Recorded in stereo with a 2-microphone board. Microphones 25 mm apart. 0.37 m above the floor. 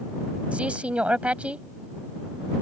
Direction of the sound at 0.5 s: 55° right (ahead or behind).